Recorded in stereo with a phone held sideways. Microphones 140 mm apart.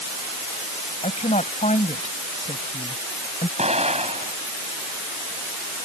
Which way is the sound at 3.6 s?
50° right (ahead or behind).